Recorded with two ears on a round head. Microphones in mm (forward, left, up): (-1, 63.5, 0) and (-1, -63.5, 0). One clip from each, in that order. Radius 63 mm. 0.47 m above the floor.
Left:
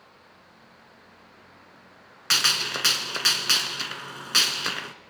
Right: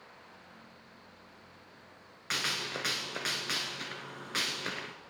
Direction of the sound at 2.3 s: 75° left (ahead or behind).